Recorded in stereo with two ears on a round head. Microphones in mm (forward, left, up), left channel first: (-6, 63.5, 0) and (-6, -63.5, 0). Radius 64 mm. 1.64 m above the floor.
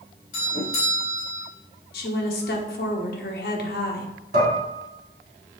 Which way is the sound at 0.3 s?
65° left (ahead or behind).